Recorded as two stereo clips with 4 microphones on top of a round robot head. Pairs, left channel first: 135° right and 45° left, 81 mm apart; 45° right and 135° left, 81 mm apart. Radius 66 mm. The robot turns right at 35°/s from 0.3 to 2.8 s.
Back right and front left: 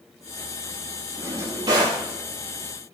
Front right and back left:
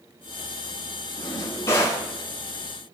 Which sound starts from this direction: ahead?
A drawer, at 1.2 s.